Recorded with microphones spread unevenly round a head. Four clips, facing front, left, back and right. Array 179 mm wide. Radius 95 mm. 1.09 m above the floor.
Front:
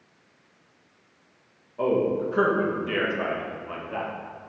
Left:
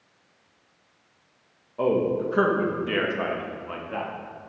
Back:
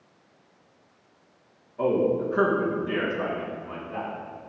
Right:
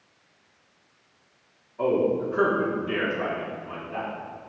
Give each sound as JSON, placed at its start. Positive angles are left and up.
{"t": 1.8, "sound": "a man speaking", "azimuth_deg": 115, "distance_m": 1.4}